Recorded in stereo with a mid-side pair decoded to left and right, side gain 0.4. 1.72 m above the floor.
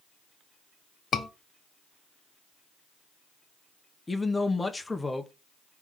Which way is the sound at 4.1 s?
20° left.